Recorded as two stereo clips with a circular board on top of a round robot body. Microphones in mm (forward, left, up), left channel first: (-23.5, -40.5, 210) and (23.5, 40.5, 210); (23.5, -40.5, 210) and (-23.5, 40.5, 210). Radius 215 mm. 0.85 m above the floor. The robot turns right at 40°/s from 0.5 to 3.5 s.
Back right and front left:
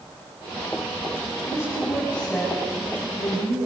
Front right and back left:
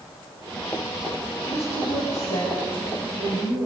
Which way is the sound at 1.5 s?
70° right.